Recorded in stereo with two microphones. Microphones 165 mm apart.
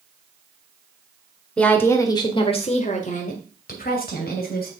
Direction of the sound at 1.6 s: 5° left (ahead or behind).